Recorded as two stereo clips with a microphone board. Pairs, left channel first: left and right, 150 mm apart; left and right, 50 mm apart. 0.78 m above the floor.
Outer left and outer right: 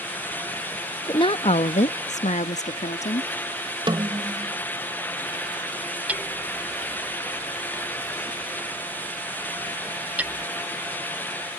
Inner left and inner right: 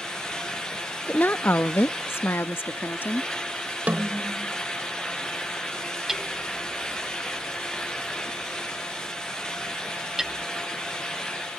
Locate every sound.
1.1 s a woman speaking: 30° left (ahead or behind); by 3.3 s 45° left (ahead or behind)
3.9 s a snare drum: 30° right (ahead or behind)
6.1 s hammering: 10° right (ahead or behind)